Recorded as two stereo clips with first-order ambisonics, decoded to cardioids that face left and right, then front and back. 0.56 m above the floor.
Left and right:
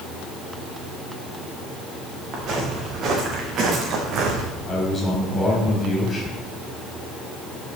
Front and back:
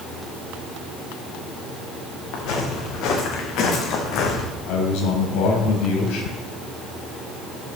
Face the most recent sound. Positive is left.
turn(degrees=15)